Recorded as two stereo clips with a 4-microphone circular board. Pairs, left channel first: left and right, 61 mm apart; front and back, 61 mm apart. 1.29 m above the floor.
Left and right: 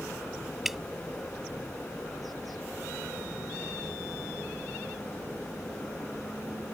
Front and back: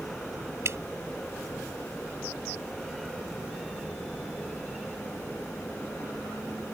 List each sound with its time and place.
0.7 s dripping: 175° right